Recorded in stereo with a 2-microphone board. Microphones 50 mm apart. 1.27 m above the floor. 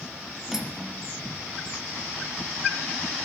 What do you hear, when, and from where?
0.5 s cutlery clinking: 10° right (ahead or behind), 0.9 m